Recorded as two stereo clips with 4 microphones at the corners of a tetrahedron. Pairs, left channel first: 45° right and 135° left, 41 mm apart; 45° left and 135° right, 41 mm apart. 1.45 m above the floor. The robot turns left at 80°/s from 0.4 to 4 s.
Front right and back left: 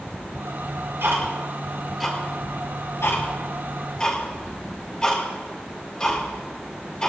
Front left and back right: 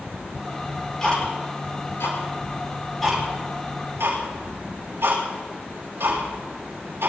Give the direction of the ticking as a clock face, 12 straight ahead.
7 o'clock.